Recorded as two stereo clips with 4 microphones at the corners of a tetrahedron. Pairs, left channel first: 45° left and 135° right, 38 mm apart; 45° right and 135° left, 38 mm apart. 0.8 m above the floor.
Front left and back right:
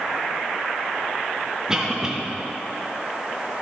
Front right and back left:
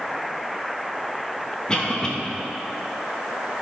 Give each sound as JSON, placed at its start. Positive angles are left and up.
{"t": 1.7, "sound": "a cough", "azimuth_deg": -85, "distance_m": 1.0}